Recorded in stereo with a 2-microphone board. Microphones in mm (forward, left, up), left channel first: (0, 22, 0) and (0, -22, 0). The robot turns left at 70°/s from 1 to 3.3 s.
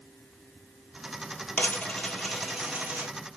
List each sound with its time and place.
1.6 s a dropped coin: 45° left (ahead or behind), 1.0 m; by 3.1 s 55° right (ahead or behind), 1.0 m